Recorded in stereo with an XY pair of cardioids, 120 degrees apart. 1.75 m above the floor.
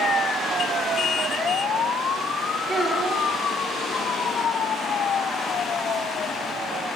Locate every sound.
2.7 s a child speaking: 20° right, 4.5 m